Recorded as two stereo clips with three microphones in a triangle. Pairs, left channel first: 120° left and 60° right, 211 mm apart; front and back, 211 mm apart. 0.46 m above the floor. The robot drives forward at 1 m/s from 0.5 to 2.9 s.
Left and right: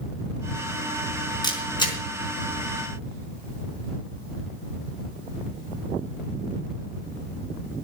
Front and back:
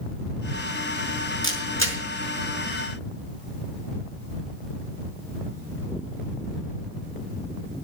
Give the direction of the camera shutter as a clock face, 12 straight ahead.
6 o'clock.